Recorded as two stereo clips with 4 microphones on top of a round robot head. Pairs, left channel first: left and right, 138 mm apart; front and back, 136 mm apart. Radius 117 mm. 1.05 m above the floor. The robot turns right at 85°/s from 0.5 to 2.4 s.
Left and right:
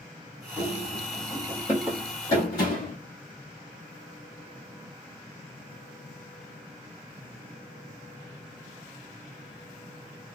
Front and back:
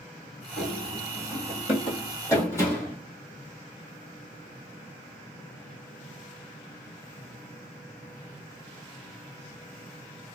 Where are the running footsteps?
35° right, 1.2 m; by 3.0 s 60° left, 1.8 m.